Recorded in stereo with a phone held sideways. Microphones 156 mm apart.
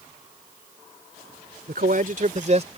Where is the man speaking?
75° right (ahead or behind); by 2.8 s 40° right (ahead or behind).